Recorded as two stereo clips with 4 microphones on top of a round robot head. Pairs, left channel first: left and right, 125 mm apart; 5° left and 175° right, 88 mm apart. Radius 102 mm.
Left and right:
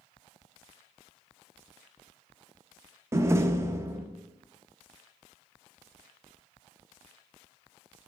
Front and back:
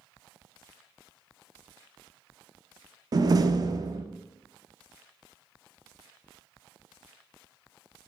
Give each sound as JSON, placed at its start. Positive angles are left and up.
{"t": 3.1, "sound": "a door slam", "azimuth_deg": -155, "distance_m": 0.6}